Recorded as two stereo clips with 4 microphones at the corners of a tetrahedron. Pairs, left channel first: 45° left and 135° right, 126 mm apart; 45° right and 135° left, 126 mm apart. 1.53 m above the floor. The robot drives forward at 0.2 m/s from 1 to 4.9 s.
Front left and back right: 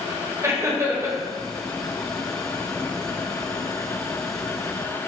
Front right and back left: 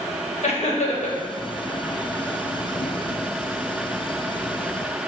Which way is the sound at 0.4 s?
70° right.